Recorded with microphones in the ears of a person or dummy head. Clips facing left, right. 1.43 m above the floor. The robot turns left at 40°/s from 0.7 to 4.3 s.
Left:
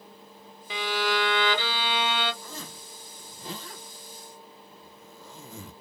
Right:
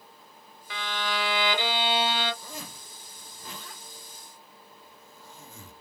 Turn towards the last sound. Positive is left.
turn(degrees=60)  # may be behind; listen again after turning